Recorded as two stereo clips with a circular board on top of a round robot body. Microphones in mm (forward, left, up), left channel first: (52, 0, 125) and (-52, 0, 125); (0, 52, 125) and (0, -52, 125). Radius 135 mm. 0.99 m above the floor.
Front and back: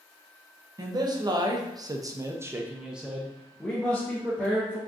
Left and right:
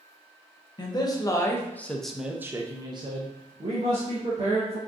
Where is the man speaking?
135° left, 1.2 m; by 4.8 s 75° right, 1.7 m.